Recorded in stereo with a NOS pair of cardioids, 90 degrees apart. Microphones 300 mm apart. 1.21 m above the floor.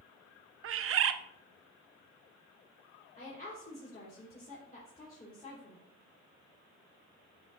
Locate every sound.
0.6 s a bird: 50° right, 0.6 m
3.2 s a woman speaking: 30° left, 3 m